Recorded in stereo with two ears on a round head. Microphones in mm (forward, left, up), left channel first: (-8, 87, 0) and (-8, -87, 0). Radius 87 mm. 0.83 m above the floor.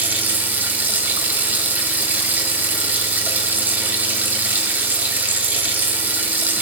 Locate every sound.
0.0 s running water: 10° right (ahead or behind), 4 m